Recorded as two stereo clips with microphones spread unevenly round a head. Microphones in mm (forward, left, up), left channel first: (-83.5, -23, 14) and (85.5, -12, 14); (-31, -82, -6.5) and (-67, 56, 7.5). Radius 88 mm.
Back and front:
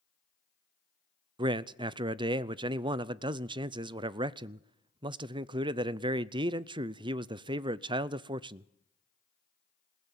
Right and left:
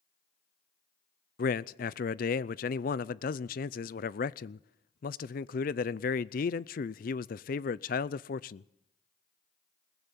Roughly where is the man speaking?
Ahead right.